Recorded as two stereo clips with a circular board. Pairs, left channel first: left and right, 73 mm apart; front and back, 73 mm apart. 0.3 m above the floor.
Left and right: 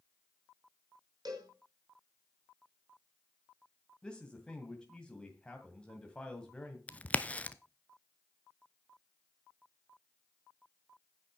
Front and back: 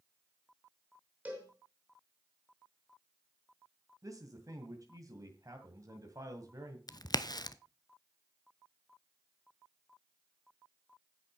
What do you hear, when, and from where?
1.2 s a cowbell: 115° right, 5.5 m
4.0 s a man speaking: 165° left, 2 m
6.9 s a crack: 20° left, 0.7 m